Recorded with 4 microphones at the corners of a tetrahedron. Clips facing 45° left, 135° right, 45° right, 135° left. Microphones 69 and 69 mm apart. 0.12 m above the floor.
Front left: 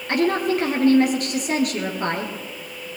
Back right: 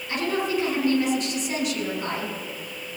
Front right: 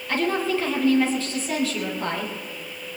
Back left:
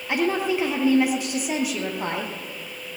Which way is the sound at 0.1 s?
65° left.